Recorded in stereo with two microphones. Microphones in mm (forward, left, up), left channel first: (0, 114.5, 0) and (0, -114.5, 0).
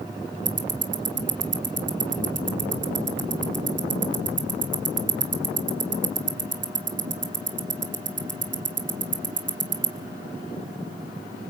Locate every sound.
0.5 s ticking: 55° right (ahead or behind), 1.9 m